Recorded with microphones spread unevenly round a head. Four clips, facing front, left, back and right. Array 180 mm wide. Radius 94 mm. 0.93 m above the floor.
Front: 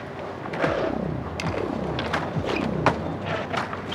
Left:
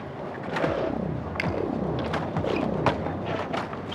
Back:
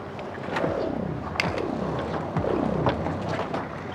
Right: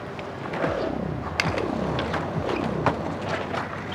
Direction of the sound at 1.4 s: 120° right.